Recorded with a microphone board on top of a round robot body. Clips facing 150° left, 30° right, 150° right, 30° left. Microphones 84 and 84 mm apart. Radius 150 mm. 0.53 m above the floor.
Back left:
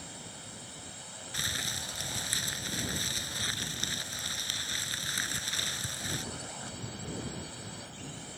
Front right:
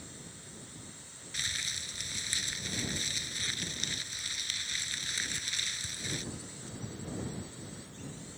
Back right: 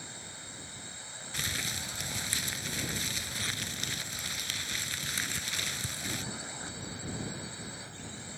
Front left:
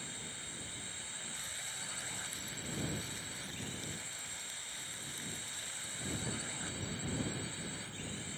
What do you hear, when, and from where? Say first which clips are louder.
0.0 s a drone: back left 3 dB, back right 1 dB; 140° left
1.3 s crumpling: back left 3 dB, back right 10 dB; 160° right